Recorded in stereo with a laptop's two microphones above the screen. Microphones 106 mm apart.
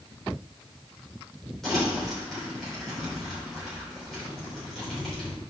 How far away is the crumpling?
About 4 m.